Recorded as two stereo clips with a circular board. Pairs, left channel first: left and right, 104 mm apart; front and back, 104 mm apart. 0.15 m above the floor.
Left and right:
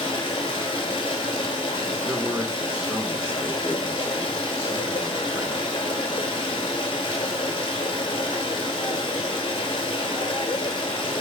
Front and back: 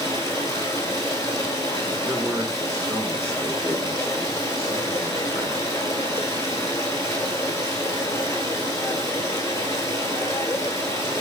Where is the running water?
60° left, 1.0 m.